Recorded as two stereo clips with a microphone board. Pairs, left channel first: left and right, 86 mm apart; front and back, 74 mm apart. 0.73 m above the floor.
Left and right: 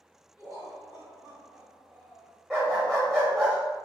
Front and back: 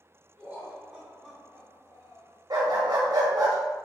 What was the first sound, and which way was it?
Laughter, 120° left.